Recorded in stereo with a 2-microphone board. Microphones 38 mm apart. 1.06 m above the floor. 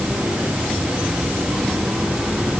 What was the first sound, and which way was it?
Only background noise.